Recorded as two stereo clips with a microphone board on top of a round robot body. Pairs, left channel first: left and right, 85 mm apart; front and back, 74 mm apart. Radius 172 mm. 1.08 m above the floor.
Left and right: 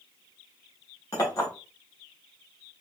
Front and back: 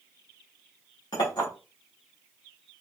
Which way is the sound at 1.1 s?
35° left.